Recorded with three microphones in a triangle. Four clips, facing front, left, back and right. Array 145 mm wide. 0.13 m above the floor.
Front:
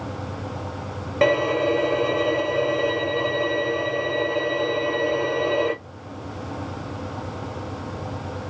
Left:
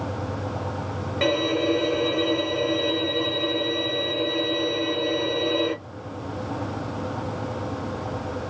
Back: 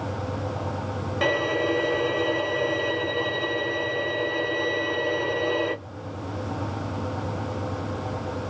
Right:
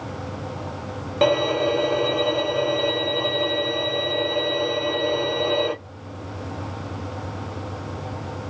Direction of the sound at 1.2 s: 45° right.